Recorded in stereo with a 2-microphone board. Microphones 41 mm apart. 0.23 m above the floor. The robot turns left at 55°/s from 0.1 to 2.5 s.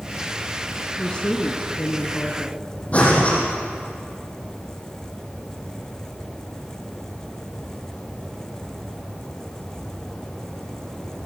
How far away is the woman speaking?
About 2 m.